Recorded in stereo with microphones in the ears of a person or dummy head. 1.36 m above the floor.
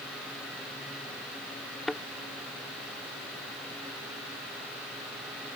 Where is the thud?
Centre (ahead or behind).